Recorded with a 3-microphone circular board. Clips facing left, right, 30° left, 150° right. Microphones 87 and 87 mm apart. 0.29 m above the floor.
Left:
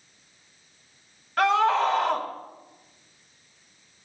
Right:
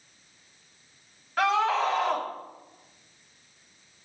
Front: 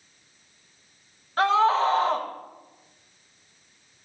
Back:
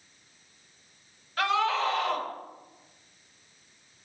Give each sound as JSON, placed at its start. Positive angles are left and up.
{"t": 1.4, "sound": "a scream", "azimuth_deg": -5, "distance_m": 2.0}